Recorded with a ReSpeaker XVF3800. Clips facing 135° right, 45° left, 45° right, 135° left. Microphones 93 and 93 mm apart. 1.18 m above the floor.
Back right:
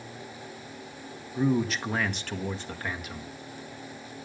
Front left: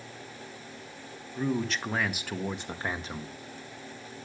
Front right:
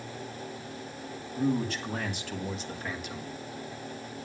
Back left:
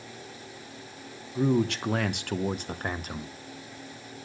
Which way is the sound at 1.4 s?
145° left.